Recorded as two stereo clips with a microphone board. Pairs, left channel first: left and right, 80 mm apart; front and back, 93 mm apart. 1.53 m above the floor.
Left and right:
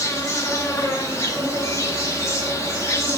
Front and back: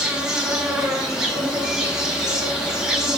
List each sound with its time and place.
0.0 s an insect: 105° left, 1.6 m